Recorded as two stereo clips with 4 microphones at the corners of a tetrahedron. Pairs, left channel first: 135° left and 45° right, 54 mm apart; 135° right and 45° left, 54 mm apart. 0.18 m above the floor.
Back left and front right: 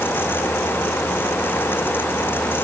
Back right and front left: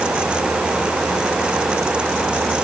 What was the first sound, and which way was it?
Only background noise.